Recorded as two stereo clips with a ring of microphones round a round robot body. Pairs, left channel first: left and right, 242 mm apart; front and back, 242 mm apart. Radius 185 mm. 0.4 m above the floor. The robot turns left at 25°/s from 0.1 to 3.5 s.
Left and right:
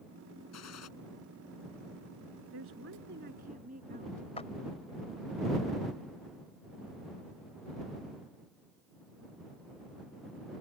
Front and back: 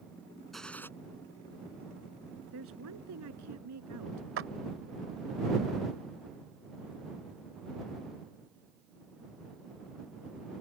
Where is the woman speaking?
135° right; by 4.3 s 155° right.